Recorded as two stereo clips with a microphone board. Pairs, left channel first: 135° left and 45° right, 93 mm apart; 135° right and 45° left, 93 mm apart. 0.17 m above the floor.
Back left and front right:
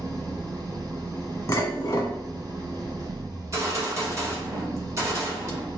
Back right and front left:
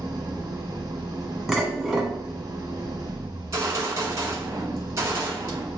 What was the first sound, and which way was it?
An engine running, 5° left.